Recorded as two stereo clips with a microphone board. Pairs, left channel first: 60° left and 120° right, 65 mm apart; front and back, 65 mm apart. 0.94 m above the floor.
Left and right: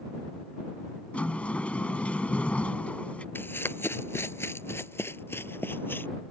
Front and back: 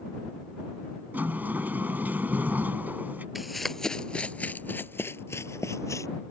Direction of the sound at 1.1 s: 125° left.